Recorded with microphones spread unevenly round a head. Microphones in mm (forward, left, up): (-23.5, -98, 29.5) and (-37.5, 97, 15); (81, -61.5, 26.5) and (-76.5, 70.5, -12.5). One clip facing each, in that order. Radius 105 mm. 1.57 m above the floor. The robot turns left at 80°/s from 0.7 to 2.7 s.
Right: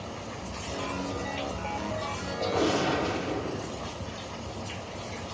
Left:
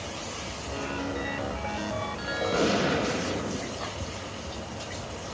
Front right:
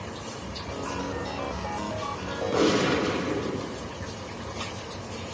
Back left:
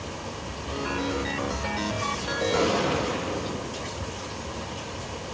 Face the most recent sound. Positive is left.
turn(degrees=20)